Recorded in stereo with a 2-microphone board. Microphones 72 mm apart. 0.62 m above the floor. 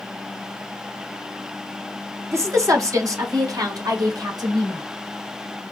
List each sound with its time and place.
2.3 s a woman speaking: 45° right (ahead or behind), 1.3 m; by 4.8 s 70° right (ahead or behind), 2.5 m